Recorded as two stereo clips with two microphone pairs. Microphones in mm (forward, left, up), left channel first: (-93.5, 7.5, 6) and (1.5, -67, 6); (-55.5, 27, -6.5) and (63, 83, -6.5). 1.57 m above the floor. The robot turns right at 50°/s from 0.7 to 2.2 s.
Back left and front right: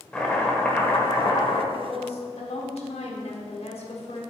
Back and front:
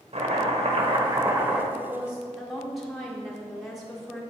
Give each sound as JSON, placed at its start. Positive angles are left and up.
{"t": 0.1, "sound": "chopping", "azimuth_deg": 60, "distance_m": 1.3}
{"t": 1.7, "sound": "a woman speaking", "azimuth_deg": 90, "distance_m": 1.4}